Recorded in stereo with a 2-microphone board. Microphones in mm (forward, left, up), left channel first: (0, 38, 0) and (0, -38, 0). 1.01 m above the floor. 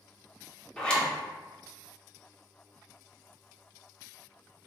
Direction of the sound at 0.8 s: 10° left (ahead or behind).